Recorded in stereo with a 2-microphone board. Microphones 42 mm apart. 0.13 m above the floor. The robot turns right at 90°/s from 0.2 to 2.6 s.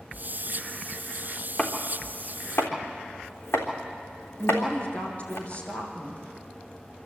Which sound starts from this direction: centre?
Chopping, at 1.6 s.